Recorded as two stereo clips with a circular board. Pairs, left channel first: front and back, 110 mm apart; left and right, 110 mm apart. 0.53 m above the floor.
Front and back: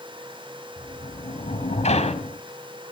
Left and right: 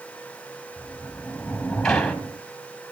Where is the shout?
No shout in this recording.